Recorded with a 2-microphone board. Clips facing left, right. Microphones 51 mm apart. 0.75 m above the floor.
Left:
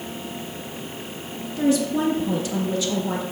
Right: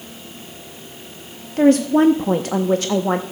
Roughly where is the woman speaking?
Right.